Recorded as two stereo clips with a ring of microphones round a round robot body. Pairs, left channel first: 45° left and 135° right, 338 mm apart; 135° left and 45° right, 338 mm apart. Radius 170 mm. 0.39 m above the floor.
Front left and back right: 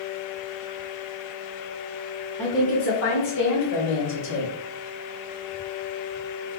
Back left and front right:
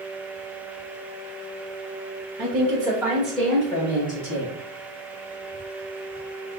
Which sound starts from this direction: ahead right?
A woman speaking, at 2.4 s.